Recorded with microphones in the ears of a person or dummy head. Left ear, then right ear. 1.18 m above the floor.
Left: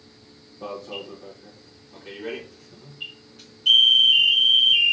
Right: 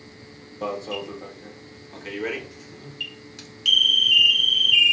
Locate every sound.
0.6 s an alarm: 60° right (ahead or behind), 0.6 m